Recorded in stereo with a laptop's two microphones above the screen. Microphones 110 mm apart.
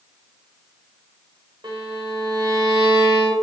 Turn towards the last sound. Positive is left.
turn(degrees=-40)  # may be behind; listen again after turning